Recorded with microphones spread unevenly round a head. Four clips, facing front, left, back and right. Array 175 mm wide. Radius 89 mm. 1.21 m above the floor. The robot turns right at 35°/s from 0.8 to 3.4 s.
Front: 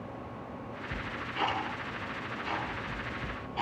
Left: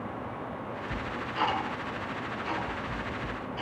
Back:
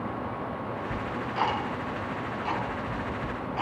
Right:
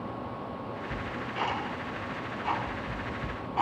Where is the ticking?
Straight behind, 9 m; by 3.6 s 90° right, 9 m.